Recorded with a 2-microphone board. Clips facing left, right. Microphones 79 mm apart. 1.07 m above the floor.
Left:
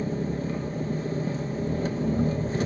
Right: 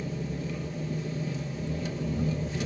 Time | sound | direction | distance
0.0 | an engine running | 40° left (ahead or behind) | 0.9 m